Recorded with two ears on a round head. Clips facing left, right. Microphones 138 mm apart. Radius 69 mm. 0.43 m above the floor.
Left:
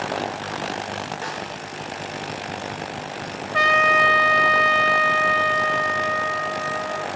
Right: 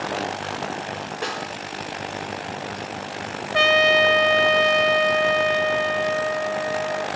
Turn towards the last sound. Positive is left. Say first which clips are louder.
# right 2 dB
turn(degrees=-40)  # may be behind; listen again after turning